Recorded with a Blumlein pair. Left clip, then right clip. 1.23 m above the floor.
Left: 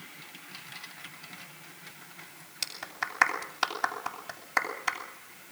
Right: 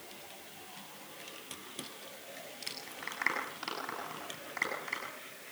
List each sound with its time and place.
2.6 s a clap: 35° left, 8 m